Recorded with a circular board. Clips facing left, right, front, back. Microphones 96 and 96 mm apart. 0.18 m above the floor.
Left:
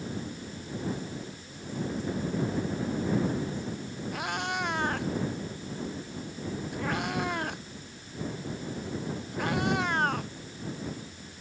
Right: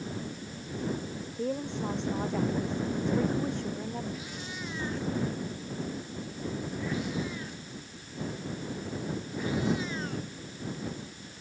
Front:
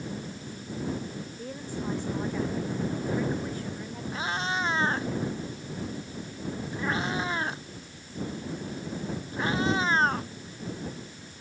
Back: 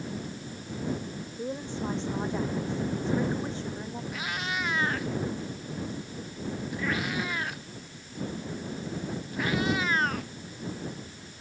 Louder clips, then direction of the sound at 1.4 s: Right 9 dB, back 5 dB; 110° right.